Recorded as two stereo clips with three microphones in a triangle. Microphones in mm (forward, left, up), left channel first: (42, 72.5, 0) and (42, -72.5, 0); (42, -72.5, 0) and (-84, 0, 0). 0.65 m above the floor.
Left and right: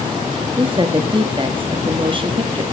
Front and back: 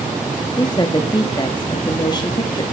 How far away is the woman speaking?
About 0.7 m.